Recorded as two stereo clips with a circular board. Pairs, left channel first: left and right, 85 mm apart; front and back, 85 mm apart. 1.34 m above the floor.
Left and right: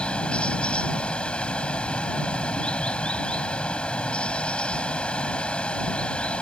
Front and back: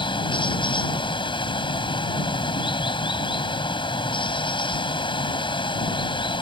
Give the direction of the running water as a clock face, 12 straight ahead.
12 o'clock.